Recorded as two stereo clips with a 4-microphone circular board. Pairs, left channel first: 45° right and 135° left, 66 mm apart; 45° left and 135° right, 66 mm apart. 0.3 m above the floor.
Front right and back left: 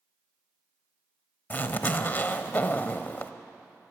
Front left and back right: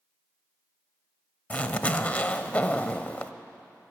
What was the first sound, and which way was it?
A zipper, 10° right.